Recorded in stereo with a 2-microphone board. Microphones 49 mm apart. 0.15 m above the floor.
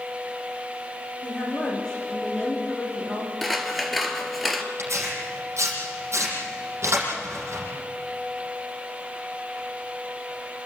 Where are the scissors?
Centre (ahead or behind), 2 m.